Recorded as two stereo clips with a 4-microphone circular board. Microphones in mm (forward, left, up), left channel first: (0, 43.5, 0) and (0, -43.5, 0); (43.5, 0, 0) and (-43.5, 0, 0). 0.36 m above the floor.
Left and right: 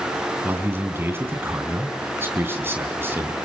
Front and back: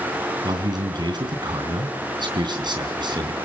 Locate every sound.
0.4 s a man speaking: 155° right, 3 m